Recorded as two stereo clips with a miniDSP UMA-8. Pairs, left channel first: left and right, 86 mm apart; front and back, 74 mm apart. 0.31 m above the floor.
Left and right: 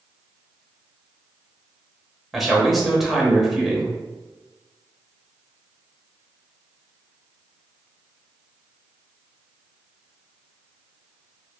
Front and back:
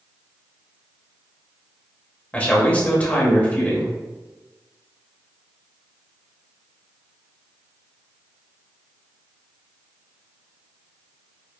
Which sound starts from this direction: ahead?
A man speaking, at 2.3 s.